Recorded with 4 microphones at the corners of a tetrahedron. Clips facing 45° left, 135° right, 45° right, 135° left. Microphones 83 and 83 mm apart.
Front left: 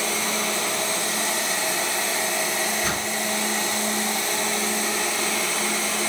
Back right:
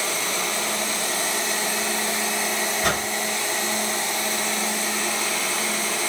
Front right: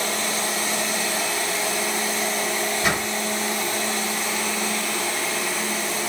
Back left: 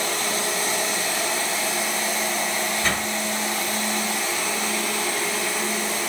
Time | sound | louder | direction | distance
2.8 | a whoosh | back right 3 dB, front right 3 dB | 125° right | 1.5 m